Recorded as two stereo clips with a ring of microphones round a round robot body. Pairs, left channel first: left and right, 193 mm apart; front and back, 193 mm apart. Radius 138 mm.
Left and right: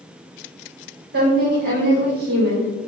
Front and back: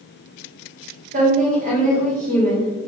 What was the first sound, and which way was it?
A woman speaking, 130° right.